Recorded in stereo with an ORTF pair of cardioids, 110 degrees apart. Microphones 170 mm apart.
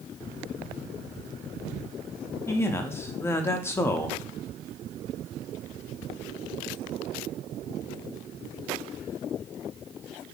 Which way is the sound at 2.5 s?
15° left.